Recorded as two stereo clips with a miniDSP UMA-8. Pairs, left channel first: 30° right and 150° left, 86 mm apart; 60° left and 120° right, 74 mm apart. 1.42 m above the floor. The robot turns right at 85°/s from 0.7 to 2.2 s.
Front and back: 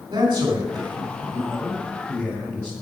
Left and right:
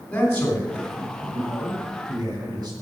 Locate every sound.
0.1 s a man speaking: 130° left, 3.5 m; by 2.7 s 100° right, 3.5 m